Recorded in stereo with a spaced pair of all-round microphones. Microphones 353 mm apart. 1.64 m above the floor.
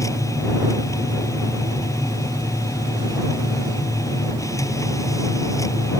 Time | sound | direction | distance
0.0 | a machine running | 10° left (ahead or behind) | ?